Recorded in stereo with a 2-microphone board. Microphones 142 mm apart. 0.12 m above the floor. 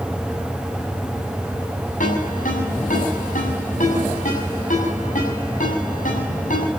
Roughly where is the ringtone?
Left.